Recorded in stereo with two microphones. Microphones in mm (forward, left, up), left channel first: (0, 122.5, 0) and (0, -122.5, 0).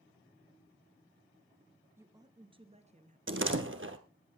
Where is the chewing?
No chewing in this recording.